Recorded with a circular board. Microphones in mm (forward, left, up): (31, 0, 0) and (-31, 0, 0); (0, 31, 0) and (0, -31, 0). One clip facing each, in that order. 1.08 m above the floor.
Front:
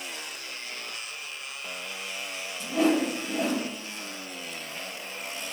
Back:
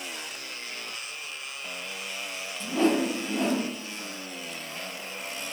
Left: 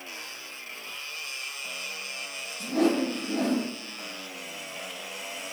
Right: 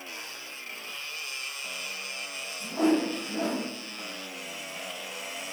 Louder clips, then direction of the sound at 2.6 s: Even, left 1 dB; 85° left.